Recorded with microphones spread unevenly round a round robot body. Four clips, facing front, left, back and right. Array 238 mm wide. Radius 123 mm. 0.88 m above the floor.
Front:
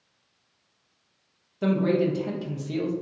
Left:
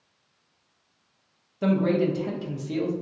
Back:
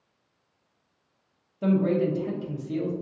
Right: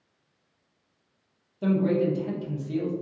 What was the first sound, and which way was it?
A man speaking, 55° left.